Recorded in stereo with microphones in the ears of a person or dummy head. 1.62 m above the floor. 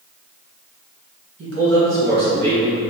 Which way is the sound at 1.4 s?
75° right (ahead or behind).